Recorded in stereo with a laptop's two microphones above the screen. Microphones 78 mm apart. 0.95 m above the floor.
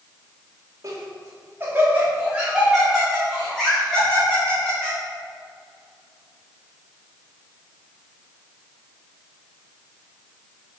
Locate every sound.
0.8 s laughter: 50° right (ahead or behind), 2.0 m; by 5.0 s 15° left (ahead or behind), 4 m